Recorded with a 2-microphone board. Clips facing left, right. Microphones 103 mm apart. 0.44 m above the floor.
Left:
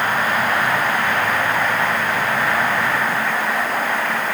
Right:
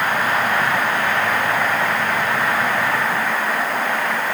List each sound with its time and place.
Only background noise.